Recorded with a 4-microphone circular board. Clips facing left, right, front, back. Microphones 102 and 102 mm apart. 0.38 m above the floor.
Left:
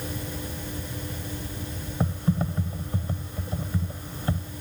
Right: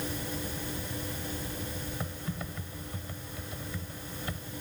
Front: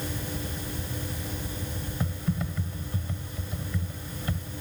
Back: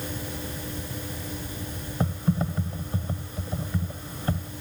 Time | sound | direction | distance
2.0 | typing on a keyboard | 135° left | ?